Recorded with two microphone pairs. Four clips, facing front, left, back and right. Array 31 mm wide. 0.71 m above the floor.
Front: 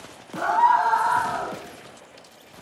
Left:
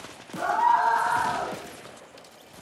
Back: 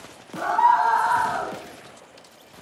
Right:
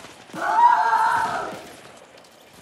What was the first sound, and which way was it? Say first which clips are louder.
A scream: right 5 dB, even; 60° right.